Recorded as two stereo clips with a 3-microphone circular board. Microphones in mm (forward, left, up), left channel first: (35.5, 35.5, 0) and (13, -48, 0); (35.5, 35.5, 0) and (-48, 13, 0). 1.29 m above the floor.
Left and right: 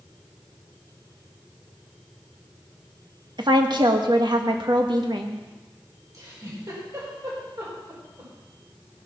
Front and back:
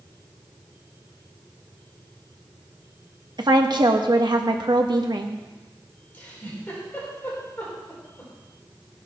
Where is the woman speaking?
135° right, 1.4 m.